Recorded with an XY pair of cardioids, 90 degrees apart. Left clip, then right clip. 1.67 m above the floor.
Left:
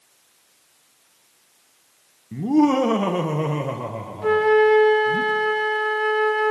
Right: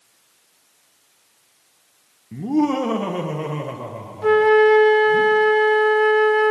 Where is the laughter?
15° left, 0.9 m; by 5.2 s 45° left, 2.5 m.